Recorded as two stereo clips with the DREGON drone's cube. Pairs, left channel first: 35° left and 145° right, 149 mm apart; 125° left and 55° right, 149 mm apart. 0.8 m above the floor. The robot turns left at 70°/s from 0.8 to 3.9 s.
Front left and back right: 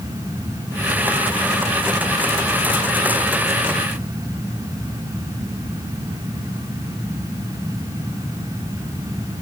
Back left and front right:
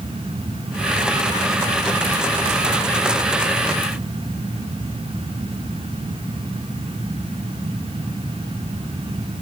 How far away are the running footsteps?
I don't hear running footsteps.